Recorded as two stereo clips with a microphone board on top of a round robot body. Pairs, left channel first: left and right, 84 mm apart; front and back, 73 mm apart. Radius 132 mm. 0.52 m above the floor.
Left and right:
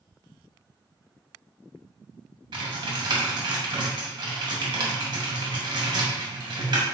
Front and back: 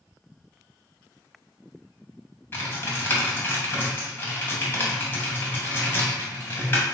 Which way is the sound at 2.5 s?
60° right.